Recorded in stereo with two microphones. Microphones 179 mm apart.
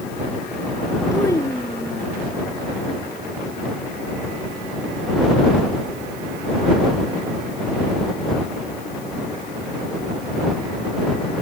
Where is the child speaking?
15° left (ahead or behind).